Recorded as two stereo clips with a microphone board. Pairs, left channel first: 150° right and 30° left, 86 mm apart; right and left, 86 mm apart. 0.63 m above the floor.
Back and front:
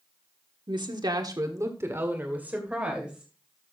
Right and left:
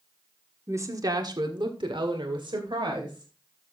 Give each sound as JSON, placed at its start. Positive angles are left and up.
{"t": 0.7, "sound": "a woman speaking", "azimuth_deg": 35, "distance_m": 1.4}